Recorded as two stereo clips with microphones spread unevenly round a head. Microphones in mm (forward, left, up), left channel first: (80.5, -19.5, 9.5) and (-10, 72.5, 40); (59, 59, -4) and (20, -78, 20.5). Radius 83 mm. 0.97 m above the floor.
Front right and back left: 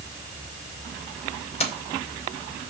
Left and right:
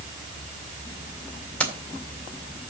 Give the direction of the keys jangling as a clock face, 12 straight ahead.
12 o'clock.